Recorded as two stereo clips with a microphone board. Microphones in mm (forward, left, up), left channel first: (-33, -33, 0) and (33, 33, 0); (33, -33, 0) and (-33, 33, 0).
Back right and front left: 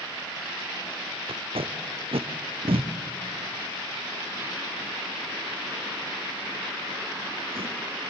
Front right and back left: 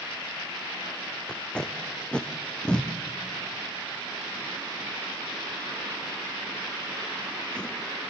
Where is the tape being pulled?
35° left, 1.9 m.